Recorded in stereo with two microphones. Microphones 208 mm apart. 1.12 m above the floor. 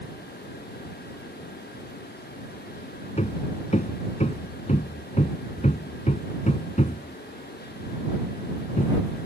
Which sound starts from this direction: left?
Hammering, at 3.2 s.